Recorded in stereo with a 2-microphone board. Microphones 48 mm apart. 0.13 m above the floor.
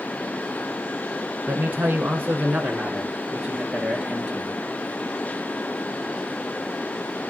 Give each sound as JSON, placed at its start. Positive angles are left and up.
{"t": 1.5, "sound": "a man speaking", "side_deg": -40, "distance_m": 1.5}